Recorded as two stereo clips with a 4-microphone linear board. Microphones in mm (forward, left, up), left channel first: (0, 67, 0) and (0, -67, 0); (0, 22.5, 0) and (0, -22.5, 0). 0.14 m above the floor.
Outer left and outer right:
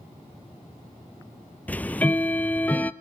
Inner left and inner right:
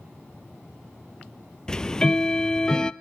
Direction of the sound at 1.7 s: 10° left (ahead or behind).